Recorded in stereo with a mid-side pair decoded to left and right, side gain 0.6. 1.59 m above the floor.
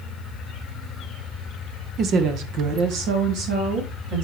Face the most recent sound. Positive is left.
turn(degrees=-75)